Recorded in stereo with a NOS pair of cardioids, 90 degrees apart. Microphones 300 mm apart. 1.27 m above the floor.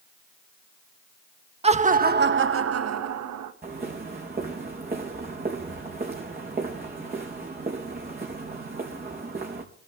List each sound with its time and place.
1.6 s laughter: 20° right, 1.6 m; by 3.5 s 75° right, 1.6 m
3.6 s footsteps: 30° right, 5 m